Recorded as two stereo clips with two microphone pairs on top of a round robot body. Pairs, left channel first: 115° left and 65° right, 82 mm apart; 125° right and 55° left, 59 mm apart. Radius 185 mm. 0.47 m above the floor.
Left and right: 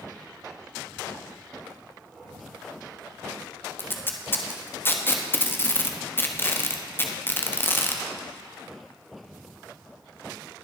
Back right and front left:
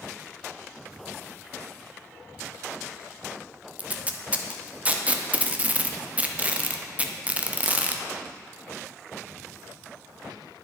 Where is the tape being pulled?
90° left, 1.4 m.